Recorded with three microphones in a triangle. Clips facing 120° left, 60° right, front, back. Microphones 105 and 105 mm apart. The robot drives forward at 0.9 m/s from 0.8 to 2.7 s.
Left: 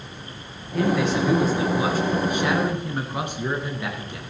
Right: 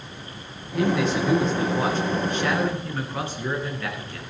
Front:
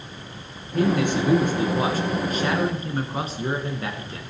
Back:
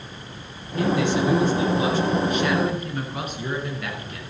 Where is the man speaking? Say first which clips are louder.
Left 1 dB, even; 30° left, 4 m; by 4.2 s 50° left, 2.5 m.